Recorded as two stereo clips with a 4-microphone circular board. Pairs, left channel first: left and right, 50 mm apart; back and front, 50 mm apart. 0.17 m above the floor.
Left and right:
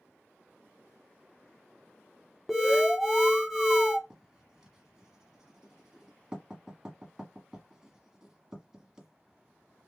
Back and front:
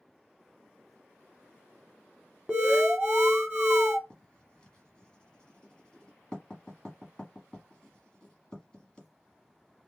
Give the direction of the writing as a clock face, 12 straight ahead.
5 o'clock.